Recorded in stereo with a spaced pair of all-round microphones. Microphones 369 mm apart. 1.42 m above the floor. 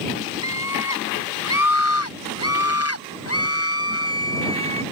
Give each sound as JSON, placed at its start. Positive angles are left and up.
{"t": 0.4, "sound": "a scream", "side_deg": 50}